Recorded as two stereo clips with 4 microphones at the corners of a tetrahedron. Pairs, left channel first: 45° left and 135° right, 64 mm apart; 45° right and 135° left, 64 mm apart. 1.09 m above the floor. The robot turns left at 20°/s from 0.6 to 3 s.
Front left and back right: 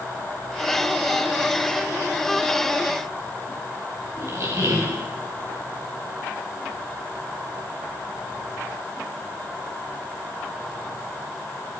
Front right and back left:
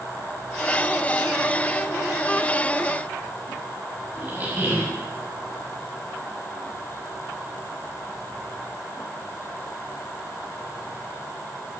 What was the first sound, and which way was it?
A squeak, 160° right.